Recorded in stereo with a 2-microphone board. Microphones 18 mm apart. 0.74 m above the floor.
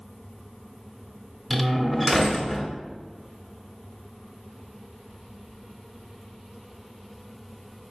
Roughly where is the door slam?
Centre.